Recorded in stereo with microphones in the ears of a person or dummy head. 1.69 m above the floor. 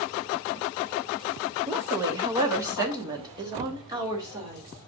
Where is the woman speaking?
10° right (ahead or behind), 0.6 m; by 4.7 s 20° right (ahead or behind), 3 m.